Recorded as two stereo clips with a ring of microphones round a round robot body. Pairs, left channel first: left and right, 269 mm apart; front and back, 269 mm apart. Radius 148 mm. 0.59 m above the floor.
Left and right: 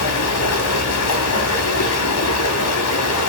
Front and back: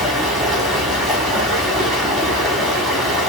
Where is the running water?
90° left, 0.9 m.